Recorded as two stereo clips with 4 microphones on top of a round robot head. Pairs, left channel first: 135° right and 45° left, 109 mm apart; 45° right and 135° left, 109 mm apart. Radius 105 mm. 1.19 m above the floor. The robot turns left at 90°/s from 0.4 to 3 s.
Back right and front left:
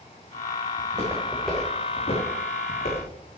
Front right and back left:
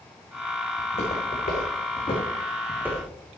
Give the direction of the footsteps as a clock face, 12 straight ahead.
12 o'clock.